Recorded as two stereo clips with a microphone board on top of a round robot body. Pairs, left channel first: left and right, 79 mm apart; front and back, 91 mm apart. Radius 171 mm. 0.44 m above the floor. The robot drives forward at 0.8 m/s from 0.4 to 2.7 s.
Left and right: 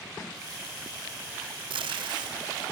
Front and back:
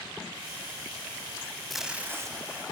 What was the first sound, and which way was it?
Tape being pulled, 90° right.